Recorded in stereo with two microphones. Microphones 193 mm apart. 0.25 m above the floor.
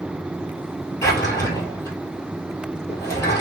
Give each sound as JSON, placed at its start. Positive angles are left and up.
{"t": 1.0, "sound": "a drawer", "side_deg": 15, "distance_m": 1.5}